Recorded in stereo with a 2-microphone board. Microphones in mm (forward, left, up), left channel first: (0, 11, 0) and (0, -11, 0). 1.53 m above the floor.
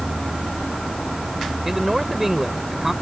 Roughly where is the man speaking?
Centre.